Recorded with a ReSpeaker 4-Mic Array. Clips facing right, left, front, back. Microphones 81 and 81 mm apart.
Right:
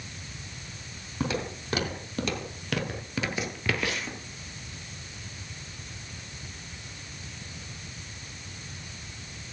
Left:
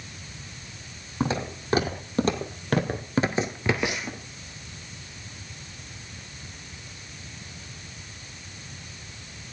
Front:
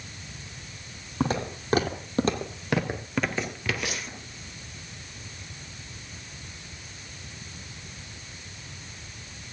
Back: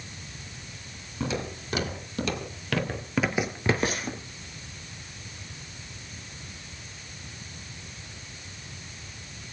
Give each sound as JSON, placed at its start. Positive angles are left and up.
{"t": 1.2, "sound": "footsteps", "azimuth_deg": 30, "distance_m": 3.0}